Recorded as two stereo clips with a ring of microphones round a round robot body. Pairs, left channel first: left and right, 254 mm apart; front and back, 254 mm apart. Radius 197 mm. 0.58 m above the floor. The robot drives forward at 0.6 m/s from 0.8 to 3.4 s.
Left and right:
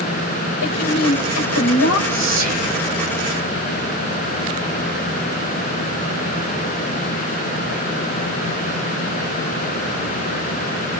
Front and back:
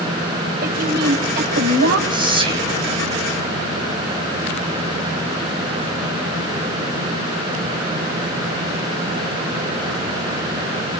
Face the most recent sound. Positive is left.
turn(degrees=-115)